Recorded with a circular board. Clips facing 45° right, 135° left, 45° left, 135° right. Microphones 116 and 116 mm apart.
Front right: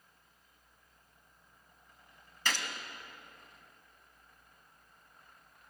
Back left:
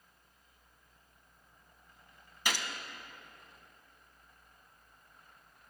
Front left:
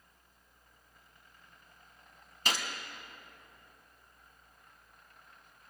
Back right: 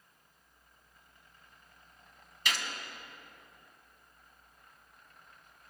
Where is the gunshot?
65° left, 1.0 m.